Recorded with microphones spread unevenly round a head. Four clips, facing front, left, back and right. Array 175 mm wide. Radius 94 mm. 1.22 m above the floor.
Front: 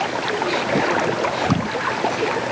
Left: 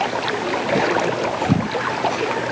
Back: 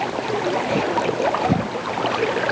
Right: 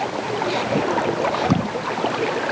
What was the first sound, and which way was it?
Only background noise.